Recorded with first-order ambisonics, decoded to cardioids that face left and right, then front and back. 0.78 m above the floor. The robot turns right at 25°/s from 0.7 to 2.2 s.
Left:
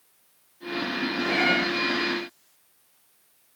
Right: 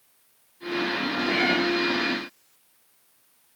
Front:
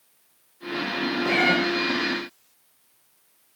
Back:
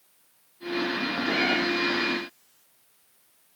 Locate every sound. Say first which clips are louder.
1.2 s a cat meowing: left 1 dB, front 5 dB; 15° left, 7 m; by 1.6 s 20° left, 7 m